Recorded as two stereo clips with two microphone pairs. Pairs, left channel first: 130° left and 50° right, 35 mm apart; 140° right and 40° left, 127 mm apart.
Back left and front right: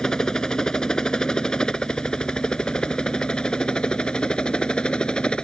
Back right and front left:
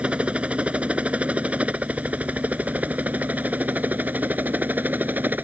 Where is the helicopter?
105° left.